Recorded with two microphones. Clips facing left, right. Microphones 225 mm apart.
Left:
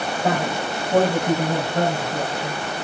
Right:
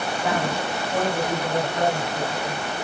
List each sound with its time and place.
0.2 s a man speaking: 40° left (ahead or behind), 8.5 m; by 2.6 s 55° left (ahead or behind), 7.5 m